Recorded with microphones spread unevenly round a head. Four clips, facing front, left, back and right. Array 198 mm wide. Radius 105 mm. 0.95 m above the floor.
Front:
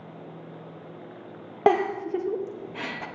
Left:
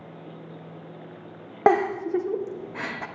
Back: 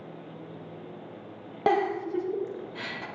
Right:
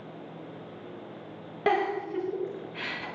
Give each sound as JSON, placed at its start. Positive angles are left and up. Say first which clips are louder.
{"t": 1.7, "sound": "a giggle", "louder": "left 6 dB, front 3 dB", "azimuth_deg": 40, "distance_m": 1.3}